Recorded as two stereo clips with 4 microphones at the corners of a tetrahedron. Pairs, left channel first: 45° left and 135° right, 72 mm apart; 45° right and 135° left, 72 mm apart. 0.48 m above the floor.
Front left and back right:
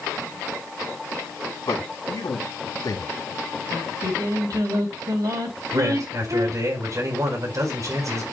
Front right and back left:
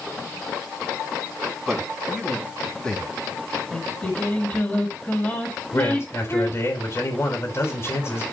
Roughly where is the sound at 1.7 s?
Ahead left.